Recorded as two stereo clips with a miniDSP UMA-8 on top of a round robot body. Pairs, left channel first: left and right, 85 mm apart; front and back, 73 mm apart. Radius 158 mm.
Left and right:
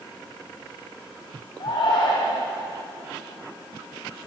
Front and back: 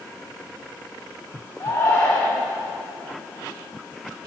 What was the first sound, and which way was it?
A shout, 55° left.